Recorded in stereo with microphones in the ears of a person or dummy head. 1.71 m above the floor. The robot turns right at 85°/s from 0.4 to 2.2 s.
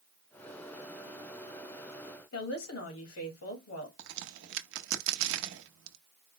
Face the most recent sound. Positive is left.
turn(degrees=-70)  # may be behind; listen again after turning